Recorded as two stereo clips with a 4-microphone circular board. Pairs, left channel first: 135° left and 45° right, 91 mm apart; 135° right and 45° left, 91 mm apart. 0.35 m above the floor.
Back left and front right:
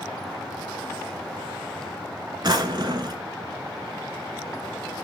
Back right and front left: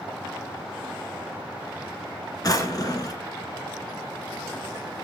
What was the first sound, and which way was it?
A drawer, 85° right.